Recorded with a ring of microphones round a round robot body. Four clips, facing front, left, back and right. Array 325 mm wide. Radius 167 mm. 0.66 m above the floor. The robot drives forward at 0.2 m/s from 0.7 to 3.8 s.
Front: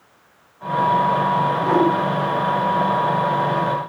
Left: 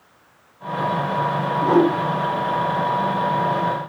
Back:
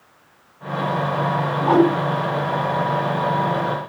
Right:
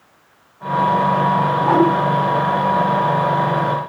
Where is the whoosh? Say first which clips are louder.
Even, back 4 dB; 130° right, 3.5 m.